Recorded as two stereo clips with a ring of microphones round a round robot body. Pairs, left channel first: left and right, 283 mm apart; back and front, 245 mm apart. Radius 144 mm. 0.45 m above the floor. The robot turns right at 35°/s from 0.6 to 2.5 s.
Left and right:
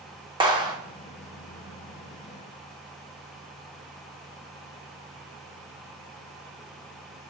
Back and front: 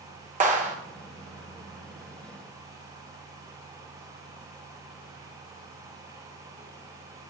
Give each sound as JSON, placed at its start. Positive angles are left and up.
{"t": 0.4, "sound": "a clap", "azimuth_deg": -30, "distance_m": 1.1}